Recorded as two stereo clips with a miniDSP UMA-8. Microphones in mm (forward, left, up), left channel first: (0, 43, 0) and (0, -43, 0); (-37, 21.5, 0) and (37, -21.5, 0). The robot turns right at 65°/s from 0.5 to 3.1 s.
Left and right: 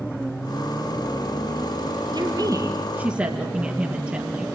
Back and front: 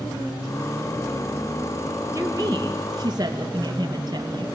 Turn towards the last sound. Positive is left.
turn(degrees=-25)